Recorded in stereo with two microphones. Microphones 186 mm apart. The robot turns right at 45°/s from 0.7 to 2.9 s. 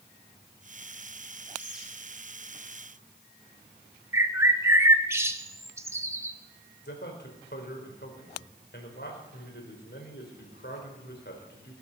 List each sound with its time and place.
1.6 s a bird: 15° right (ahead or behind), 4 m; by 1.9 s centre (ahead or behind), 4 m
4.1 s a bird: 15° right (ahead or behind), 0.9 m
6.8 s a man speaking: 65° left (ahead or behind), 4 m